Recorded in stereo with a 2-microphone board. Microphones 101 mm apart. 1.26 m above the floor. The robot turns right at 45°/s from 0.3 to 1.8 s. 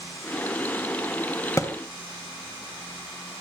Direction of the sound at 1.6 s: 35° left (ahead or behind).